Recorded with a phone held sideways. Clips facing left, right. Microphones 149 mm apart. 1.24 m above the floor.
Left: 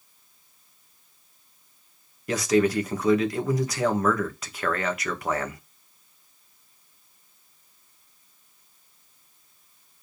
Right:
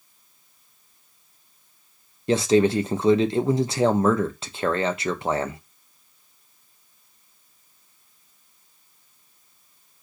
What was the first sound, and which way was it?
A man speaking, 25° right (ahead or behind).